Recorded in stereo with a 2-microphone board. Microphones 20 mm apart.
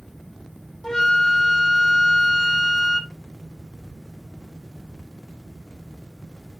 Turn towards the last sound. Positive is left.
turn(degrees=30)  # may be behind; listen again after turning